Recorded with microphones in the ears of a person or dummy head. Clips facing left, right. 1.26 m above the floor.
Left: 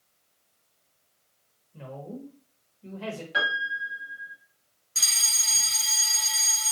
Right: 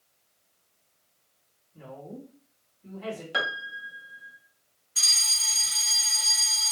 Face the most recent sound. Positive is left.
turn(degrees=55)  # may be behind; listen again after turning